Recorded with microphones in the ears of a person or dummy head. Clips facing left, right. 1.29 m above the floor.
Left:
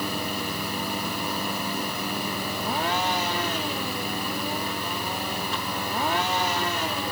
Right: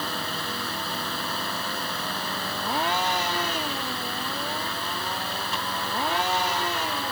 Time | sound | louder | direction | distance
0.0 | a fan | left 3 dB | 15° left (ahead or behind) | ?